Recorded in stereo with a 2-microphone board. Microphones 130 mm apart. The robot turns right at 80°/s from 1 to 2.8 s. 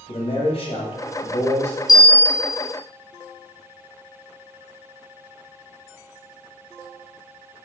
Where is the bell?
30° left, 1.3 m; by 2.7 s 95° left, 1.3 m.